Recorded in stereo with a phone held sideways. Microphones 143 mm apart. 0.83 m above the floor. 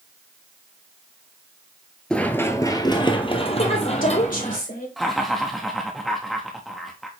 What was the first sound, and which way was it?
Running footsteps, 5° left (ahead or behind).